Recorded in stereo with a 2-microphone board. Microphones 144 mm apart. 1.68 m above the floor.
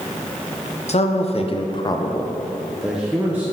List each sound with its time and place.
0.9 s a man speaking: 50° left (ahead or behind), 0.8 m; by 3.4 s 15° right (ahead or behind), 0.9 m